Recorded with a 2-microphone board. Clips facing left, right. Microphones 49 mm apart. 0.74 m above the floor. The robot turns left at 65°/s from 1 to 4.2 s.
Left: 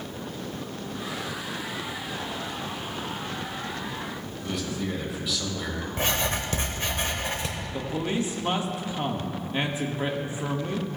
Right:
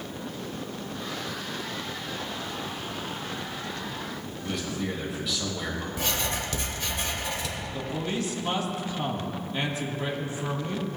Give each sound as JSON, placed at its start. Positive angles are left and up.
{"t": 4.4, "sound": "a man speaking", "side_deg": 5, "distance_m": 3.5}
{"t": 6.0, "sound": "writing", "side_deg": 40, "distance_m": 1.2}
{"t": 7.7, "sound": "a man speaking", "side_deg": 25, "distance_m": 1.2}